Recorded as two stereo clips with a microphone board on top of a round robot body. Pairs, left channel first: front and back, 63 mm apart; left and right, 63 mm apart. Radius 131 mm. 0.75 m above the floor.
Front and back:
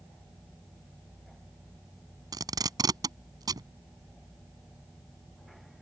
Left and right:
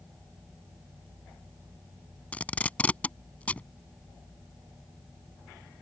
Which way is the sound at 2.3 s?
160° left.